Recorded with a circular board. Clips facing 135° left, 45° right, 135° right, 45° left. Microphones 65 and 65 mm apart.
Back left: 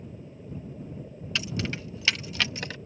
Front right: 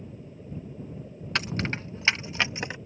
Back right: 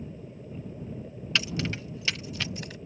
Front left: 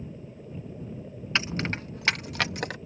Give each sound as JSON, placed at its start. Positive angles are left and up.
{"t": 1.4, "sound": "keys jangling", "azimuth_deg": -15}